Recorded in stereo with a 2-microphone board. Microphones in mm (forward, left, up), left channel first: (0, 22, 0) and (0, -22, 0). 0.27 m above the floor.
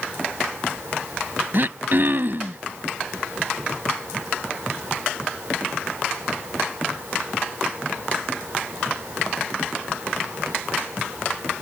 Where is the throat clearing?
50° right (ahead or behind).